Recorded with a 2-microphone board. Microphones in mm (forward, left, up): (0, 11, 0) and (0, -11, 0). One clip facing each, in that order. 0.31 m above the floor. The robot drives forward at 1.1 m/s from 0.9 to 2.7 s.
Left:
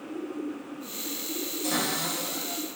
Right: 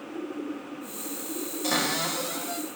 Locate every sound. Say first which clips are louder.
1.6 s a cupboard door: right 3 dB; 20° right (ahead or behind), 1.2 m